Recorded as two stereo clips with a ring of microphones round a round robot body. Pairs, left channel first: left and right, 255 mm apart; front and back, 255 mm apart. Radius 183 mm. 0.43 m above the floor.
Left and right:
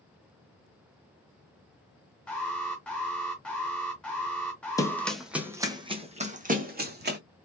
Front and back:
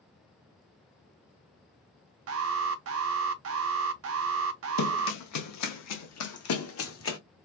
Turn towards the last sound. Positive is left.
turn(degrees=-40)